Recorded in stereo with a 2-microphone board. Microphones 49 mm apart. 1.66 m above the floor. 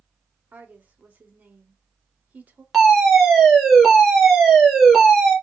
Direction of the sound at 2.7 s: Centre (ahead or behind).